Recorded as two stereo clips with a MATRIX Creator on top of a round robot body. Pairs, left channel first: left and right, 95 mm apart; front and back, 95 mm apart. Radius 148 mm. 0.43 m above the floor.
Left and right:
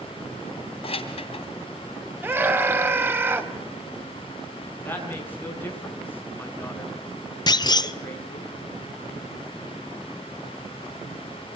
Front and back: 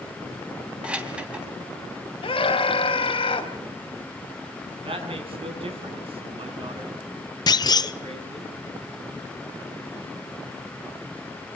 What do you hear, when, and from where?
0.8 s keys jangling: 100° left, 3 m
2.2 s a scream: 25° right, 4 m
4.8 s a woman speaking: 160° left, 6.5 m
7.5 s a clunk: 45° left, 0.8 m